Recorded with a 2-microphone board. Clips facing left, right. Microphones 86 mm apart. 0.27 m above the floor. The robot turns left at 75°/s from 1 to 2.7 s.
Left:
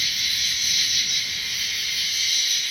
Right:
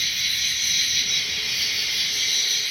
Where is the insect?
35° right, 1.5 m; by 2.7 s 165° right, 1.5 m.